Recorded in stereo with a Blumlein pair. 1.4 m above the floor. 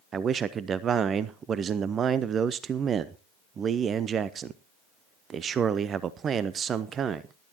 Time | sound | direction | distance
0.1 | a man speaking | 25° right | 0.6 m